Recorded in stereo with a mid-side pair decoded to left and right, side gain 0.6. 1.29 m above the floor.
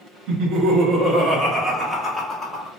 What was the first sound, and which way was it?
Laughter, 70° right.